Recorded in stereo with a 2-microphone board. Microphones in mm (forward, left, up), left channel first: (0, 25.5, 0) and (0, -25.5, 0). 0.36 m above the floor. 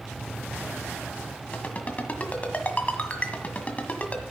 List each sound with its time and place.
1.5 s a ringtone: 25° left (ahead or behind), 1.7 m